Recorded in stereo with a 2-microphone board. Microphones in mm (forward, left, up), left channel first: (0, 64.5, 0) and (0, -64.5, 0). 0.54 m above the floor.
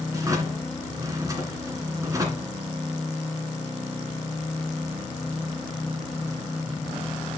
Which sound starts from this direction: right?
A drawer, at 0.1 s.